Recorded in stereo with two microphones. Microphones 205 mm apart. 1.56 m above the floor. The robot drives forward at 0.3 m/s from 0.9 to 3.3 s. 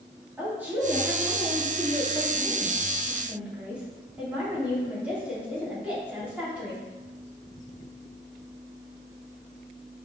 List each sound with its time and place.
0.4 s a woman speaking: 10° right (ahead or behind), 3 m; by 6.8 s 5° right (ahead or behind), 4 m